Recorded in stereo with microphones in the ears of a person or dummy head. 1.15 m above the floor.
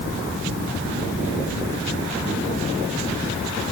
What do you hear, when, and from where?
Only background noise.